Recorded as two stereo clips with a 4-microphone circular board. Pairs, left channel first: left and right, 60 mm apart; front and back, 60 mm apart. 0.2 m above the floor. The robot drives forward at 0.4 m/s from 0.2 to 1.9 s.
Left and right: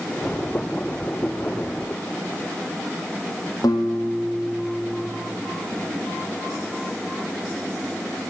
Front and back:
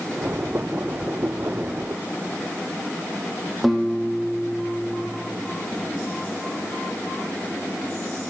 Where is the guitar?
90° left, 2 m.